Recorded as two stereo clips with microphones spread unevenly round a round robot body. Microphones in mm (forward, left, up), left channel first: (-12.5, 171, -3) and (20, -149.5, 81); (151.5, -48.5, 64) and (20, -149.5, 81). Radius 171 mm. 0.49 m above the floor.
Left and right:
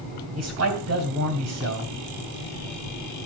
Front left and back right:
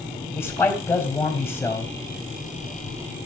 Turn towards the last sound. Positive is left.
turn(degrees=-35)